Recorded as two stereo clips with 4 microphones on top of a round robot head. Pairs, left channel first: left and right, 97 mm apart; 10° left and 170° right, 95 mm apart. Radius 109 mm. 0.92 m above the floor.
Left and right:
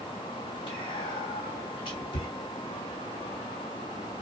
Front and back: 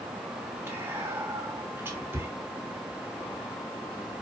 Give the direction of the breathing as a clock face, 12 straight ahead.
I don't hear breathing.